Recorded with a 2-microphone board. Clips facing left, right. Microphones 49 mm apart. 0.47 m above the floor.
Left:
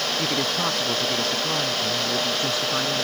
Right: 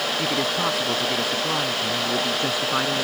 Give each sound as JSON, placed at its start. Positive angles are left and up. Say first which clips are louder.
{"t": 0.2, "sound": "a man speaking", "louder": "right 1 dB", "side_deg": -5}